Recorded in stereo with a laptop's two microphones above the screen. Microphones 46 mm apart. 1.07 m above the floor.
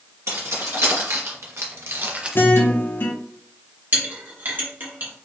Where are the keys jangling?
85° right, 1.9 m; by 2.4 s 10° right (ahead or behind), 0.5 m.